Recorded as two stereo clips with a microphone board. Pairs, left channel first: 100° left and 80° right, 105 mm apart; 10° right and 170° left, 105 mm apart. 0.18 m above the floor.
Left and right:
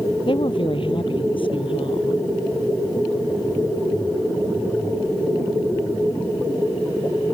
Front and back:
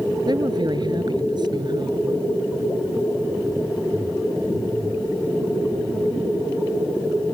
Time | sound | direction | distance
0.3 | a woman speaking | 130° left | ?